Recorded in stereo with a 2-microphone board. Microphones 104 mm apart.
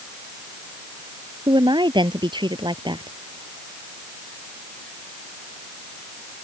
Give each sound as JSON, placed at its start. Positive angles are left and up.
{"t": 1.5, "sound": "a woman speaking", "side_deg": -50}